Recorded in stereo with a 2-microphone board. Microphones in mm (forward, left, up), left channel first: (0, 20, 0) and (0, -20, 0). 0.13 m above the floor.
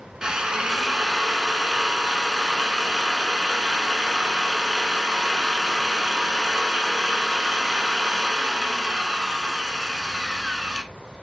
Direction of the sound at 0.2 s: 15° right (ahead or behind).